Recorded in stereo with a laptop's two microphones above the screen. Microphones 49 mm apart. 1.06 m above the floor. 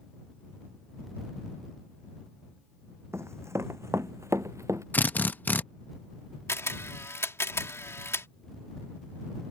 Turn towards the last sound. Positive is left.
turn(degrees=65)  # may be behind; listen again after turning